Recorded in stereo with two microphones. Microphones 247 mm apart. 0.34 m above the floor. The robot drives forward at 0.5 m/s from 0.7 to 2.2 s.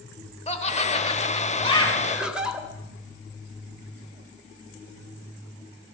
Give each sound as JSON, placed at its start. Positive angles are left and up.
{"t": 0.5, "sound": "laughter", "side_deg": 25, "distance_m": 0.9}
{"t": 2.0, "sound": "laughter", "side_deg": -5, "distance_m": 1.6}